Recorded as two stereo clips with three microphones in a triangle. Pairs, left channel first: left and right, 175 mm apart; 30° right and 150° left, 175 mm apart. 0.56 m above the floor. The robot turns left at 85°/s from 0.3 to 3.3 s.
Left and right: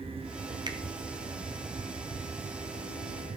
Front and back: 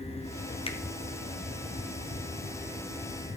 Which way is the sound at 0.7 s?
50° right.